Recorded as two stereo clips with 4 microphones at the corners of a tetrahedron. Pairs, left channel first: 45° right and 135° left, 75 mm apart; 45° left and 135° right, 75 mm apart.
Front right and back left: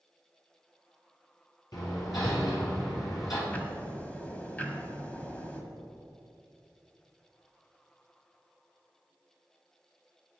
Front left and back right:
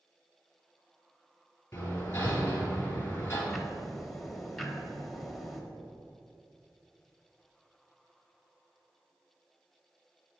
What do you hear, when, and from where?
1.7 s hammering: 15° right, 3 m
3.5 s ticking: 40° right, 1.1 m